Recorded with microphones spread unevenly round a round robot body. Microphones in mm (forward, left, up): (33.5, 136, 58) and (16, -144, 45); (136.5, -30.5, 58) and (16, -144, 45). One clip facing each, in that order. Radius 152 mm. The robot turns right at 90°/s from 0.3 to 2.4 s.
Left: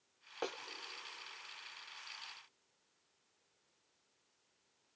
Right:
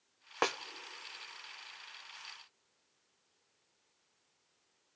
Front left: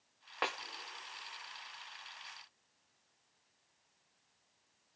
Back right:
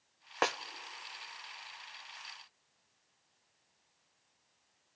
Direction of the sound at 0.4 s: 100° right.